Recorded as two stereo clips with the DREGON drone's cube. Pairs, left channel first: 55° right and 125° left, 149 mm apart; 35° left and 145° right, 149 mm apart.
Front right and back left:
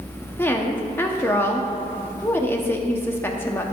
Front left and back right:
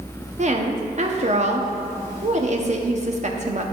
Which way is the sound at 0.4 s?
130° right.